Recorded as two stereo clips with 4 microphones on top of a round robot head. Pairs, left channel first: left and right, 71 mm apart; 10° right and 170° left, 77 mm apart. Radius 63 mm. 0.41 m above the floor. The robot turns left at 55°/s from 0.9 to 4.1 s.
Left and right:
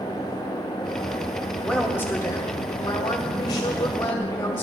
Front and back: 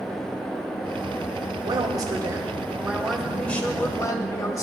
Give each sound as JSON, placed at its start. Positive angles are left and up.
{"t": 1.6, "sound": "a woman speaking", "azimuth_deg": 165, "distance_m": 2.5}